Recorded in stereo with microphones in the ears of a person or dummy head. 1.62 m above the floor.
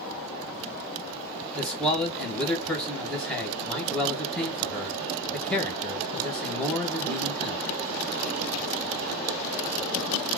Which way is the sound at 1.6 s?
5° left (ahead or behind).